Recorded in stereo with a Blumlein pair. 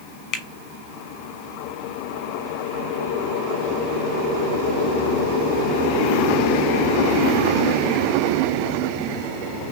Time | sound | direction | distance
0.3 | a finger snap | 35° left | 1.0 m